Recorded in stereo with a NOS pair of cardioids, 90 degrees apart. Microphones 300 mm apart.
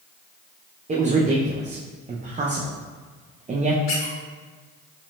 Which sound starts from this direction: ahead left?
A squeak, at 3.9 s.